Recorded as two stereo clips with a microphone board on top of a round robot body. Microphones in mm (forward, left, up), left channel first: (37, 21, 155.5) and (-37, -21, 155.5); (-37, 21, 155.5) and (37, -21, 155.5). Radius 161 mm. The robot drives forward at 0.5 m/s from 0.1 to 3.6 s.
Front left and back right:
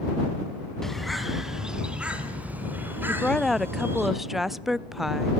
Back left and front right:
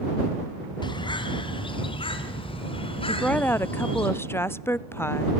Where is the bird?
115° left, 1.6 m; by 4.1 s 145° left, 2.5 m.